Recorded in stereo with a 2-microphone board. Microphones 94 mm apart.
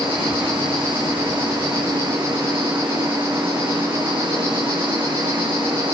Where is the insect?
70° right (ahead or behind), 10 m.